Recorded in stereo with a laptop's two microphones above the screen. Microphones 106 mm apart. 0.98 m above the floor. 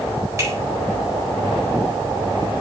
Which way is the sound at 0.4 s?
30° right (ahead or behind).